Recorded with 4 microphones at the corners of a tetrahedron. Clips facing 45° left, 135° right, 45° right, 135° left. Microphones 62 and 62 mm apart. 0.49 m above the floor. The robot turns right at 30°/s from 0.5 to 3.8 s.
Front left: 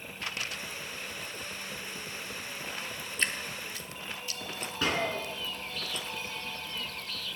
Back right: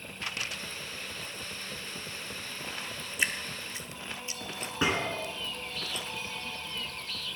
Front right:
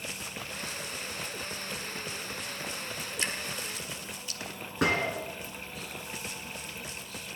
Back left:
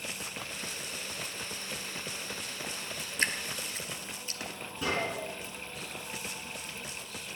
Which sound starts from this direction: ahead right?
A gunshot, at 4.8 s.